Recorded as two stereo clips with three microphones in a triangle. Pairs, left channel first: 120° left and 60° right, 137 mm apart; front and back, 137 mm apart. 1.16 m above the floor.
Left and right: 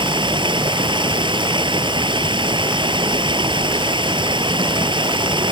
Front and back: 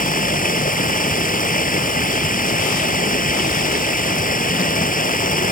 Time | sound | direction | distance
0.0 | running water | 5° right | ?